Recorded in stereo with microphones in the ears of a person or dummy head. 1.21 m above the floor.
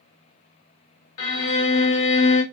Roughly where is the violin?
Left.